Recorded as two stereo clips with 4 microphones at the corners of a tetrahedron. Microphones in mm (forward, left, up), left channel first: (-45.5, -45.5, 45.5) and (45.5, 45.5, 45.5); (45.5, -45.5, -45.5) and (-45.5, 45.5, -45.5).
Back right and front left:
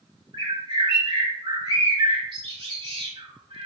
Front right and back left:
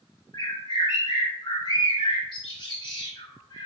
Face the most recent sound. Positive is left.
turn(degrees=0)